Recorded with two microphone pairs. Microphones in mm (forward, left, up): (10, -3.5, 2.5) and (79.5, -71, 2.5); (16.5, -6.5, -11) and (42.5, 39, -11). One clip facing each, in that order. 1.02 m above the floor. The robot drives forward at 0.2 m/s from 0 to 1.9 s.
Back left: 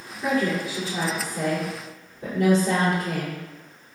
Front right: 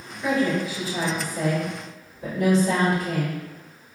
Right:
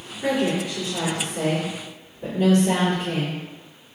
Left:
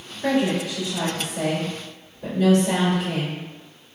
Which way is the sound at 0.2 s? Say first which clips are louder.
Front right 1 dB, left 1 dB; 160° right.